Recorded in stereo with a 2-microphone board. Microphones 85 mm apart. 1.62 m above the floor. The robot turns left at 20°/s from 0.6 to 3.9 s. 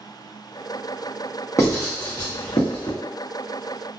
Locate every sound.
1.6 s writing: 35° left (ahead or behind), 1.0 m; by 2.9 s 60° left (ahead or behind), 1.0 m